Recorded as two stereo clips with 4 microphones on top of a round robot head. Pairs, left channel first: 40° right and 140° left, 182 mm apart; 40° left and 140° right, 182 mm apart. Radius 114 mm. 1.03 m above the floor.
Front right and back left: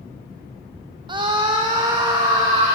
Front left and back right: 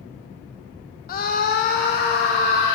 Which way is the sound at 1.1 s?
75° left.